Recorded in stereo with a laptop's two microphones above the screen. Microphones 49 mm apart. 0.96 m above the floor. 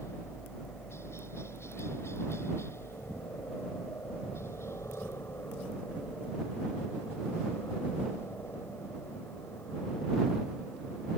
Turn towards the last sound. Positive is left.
turn(degrees=65)  # may be behind; listen again after turning